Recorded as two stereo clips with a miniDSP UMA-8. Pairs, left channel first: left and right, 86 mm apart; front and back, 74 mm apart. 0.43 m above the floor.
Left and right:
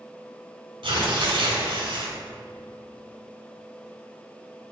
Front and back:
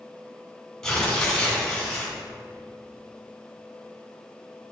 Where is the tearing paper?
85° right, 2.5 m.